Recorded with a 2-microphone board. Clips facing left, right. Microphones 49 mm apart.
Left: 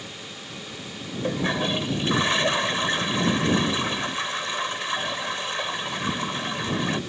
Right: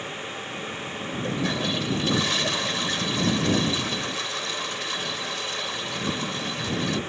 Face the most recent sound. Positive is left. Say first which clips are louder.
# left 3 dB
turn(degrees=30)  # may be behind; listen again after turning